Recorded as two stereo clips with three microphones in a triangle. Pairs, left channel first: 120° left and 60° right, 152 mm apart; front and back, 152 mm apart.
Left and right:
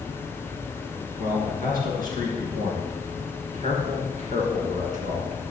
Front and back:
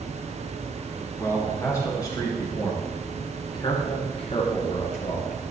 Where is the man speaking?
70° right, 3.5 m; by 5.4 s 30° right, 2.5 m.